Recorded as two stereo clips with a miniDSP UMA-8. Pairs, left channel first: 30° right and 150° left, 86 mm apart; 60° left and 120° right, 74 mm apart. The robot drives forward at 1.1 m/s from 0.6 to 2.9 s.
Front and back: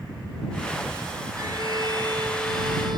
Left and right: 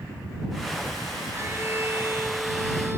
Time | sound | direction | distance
1.4 | a violin | 175° right | ?